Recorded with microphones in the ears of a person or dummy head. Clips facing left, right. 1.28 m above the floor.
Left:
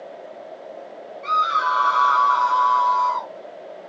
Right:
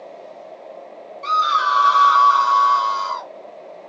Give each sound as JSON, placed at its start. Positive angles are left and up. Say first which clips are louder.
{"t": 1.2, "sound": "a scream", "louder": "right 2 dB", "side_deg": -60, "distance_m": 1.0}